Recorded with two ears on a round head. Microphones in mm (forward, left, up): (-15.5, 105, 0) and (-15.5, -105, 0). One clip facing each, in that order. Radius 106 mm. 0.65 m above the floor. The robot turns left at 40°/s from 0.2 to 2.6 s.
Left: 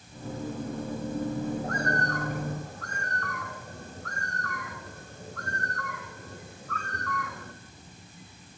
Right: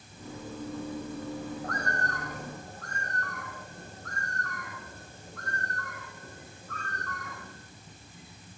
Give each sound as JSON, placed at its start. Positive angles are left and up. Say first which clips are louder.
{"t": 1.6, "sound": "a bird", "louder": "left 5 dB", "azimuth_deg": 155, "distance_m": 5.5}